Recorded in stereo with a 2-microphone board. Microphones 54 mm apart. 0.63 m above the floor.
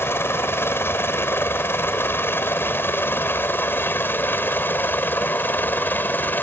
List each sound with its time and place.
0.0 s a helicopter: 50° left (ahead or behind); by 6.4 s 40° left (ahead or behind)